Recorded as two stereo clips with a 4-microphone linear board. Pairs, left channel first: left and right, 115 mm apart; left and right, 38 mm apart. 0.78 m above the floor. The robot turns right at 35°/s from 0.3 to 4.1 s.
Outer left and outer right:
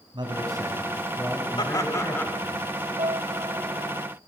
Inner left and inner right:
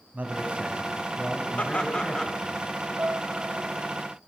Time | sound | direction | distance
0.1 | a man speaking | 40° right | 5 m
1.6 | laughter | 40° left (ahead or behind) | 3 m
3.0 | a piano | 60° right | 0.8 m